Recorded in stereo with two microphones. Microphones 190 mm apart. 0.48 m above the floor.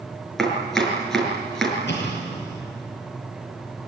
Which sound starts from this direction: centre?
Chopping, at 0.4 s.